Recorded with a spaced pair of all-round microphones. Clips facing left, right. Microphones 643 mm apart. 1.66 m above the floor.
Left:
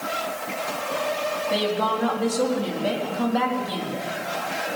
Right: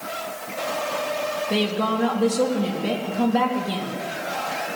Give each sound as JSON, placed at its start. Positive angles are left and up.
{"t": 1.5, "sound": "a woman speaking", "side_deg": -50, "distance_m": 4.0}